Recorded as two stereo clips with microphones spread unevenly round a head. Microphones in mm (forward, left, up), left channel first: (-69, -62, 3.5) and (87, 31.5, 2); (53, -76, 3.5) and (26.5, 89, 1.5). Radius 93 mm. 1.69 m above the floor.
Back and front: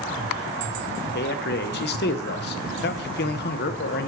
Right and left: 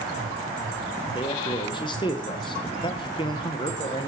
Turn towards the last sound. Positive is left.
turn(degrees=-140)